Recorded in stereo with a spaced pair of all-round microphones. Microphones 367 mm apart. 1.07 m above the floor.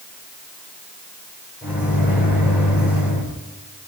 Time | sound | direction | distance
1.6 | a microwave | 5° right (ahead or behind) | 3.5 m